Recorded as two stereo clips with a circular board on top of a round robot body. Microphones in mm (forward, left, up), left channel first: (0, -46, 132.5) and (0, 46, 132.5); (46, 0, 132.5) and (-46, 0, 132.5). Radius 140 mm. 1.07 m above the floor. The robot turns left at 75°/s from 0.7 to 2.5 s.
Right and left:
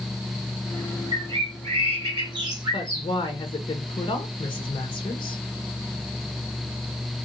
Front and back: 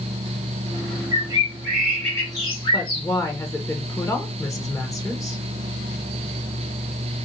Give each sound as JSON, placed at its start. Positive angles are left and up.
{"t": 1.1, "sound": "a bird", "azimuth_deg": 145, "distance_m": 1.8}
{"t": 2.7, "sound": "a woman speaking", "azimuth_deg": -55, "distance_m": 1.0}